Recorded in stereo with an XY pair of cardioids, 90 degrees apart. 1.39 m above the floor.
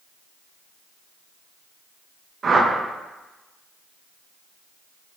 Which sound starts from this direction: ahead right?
A whoosh, at 2.4 s.